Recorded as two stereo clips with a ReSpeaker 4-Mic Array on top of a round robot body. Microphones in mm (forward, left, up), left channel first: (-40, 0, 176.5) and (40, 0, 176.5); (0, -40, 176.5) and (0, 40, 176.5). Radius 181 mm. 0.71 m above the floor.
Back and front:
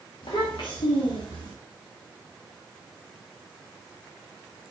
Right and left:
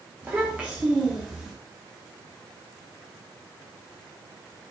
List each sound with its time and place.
0.2 s a child speaking: 160° left, 1.4 m; by 1.5 s 175° left, 2.0 m